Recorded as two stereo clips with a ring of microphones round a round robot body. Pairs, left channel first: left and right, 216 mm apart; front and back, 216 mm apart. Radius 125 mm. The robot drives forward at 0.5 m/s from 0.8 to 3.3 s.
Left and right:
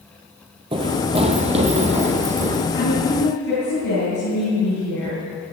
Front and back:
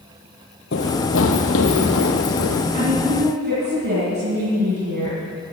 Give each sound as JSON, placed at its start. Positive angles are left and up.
{"t": 0.7, "sound": "running footsteps", "azimuth_deg": -30, "distance_m": 0.8}
{"t": 2.7, "sound": "a woman speaking", "azimuth_deg": 135, "distance_m": 5.0}